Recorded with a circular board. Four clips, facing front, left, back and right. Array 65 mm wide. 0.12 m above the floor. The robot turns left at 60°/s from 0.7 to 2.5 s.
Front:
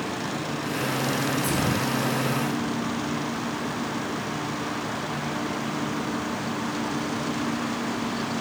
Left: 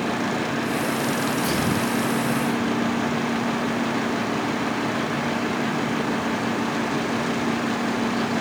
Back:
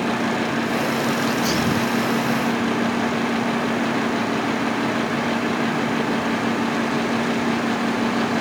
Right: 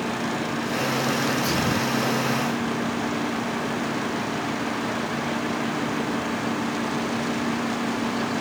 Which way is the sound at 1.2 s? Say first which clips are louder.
Left 1 dB, back 5 dB; 150° right.